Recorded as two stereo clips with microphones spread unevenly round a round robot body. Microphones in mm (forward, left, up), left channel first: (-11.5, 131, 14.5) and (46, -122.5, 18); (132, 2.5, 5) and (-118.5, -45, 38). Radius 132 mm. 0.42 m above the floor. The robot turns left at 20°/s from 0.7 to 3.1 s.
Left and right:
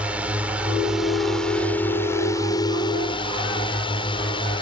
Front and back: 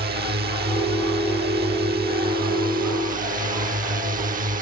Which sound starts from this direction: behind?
A drone, at 0.0 s.